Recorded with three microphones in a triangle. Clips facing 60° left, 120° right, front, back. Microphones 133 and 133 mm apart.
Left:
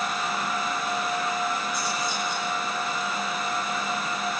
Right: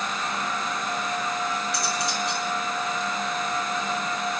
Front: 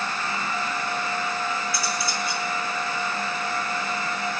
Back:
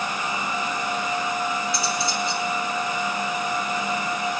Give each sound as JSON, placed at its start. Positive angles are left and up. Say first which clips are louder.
{"t": 1.7, "sound": "cutlery clinking", "louder": "right 1 dB, back 3 dB", "azimuth_deg": -115, "distance_m": 9.5}